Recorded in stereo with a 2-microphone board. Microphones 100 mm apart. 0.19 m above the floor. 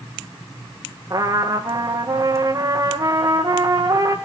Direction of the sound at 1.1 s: 35° right (ahead or behind).